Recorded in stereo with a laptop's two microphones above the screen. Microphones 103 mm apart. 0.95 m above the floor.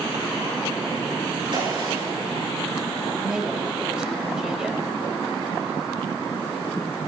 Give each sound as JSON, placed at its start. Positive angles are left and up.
{"t": 1.5, "sound": "a gunshot", "side_deg": -50, "distance_m": 7.0}
{"t": 3.2, "sound": "a woman speaking", "side_deg": -5, "distance_m": 5.0}